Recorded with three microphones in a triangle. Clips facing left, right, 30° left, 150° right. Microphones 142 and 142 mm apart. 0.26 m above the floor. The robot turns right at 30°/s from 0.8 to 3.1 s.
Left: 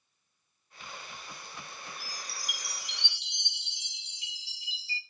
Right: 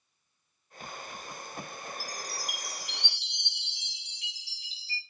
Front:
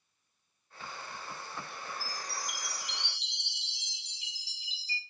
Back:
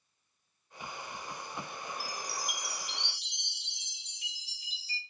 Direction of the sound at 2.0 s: 145° right.